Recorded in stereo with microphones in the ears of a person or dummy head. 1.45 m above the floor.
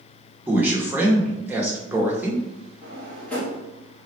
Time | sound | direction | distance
0.5 | a man speaking | 15° right (ahead or behind) | 0.7 m
2.8 | a drawer | 15° left (ahead or behind) | 1.0 m